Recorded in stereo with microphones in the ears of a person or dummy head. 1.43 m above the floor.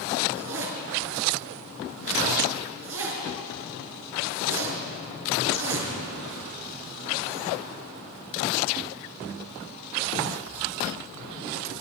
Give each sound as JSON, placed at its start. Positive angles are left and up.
{"t": 0.3, "sound": "a zipper", "side_deg": -80, "distance_m": 6.5}